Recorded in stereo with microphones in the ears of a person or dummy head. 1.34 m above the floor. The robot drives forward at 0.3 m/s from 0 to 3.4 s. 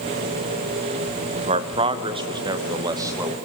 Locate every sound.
1.4 s a man speaking: 35° right (ahead or behind), 0.7 m; by 3.4 s 20° right (ahead or behind), 1.3 m